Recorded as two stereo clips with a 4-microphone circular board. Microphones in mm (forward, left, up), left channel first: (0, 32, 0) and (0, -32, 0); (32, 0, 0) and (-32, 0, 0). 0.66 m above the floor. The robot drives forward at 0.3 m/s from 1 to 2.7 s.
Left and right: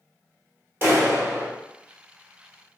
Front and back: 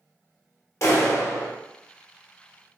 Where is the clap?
40° right, 0.9 m; by 1.5 s 45° right, 0.8 m.